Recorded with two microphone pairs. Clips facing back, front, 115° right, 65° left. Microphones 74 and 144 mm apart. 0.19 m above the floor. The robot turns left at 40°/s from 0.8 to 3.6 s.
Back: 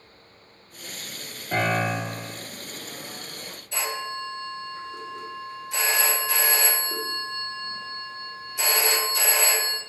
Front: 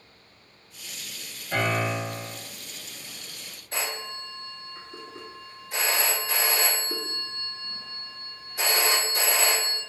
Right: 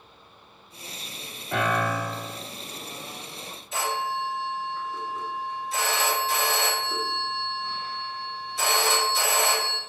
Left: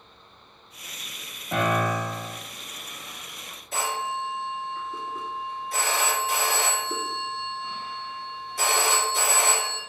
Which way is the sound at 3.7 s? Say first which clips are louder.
Back 3 dB, right 1 dB; 35° left.